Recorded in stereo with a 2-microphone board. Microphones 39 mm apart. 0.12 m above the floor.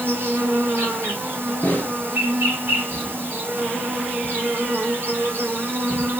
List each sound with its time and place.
0.0 s an insect: 70° right (ahead or behind), 0.8 m
1.6 s a snare drum: 55° left (ahead or behind), 0.7 m